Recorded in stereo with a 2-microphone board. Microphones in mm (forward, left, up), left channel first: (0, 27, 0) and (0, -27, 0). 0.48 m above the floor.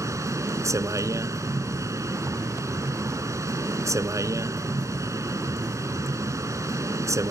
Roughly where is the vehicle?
Right.